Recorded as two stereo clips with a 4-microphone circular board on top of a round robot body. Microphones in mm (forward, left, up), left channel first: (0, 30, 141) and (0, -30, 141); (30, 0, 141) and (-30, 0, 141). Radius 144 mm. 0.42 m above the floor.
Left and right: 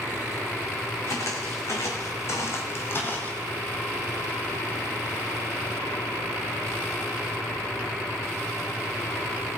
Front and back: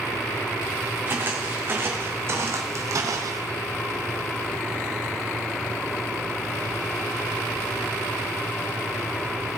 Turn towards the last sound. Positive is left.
turn(degrees=155)